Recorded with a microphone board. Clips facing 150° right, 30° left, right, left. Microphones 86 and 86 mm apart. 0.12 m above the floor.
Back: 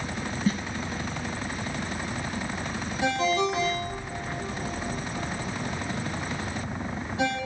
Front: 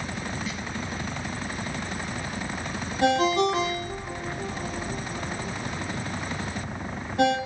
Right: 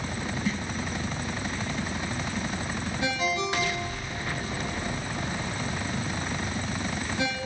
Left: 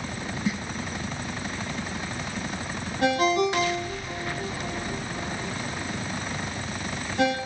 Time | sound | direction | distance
0.5 | a snare drum | 165° left | 1.0 m
3.0 | a ringtone | 60° left | 3 m